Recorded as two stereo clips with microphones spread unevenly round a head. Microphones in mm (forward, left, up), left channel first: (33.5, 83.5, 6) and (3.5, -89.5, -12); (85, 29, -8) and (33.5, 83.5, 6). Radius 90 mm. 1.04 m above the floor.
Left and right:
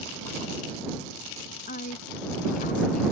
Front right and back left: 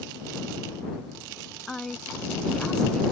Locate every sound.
1.7 s a woman speaking: 35° left